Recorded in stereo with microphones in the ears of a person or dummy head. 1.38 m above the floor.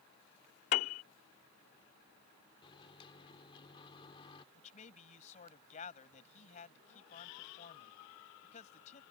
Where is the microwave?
30° left (ahead or behind).